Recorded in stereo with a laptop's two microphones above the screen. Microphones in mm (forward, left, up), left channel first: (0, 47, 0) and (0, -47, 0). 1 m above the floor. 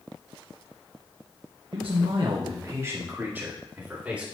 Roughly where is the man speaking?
Right.